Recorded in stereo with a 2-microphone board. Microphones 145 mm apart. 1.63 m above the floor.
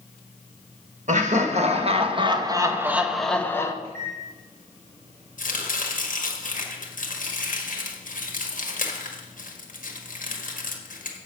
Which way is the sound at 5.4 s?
65° left (ahead or behind).